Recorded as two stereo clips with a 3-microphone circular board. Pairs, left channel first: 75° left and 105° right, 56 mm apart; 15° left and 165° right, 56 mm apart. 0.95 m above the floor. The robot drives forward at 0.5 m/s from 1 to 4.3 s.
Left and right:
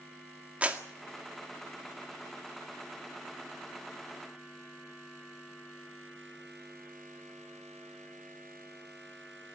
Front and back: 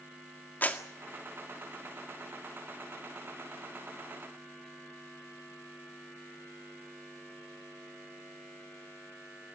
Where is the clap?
40° right, 1.8 m.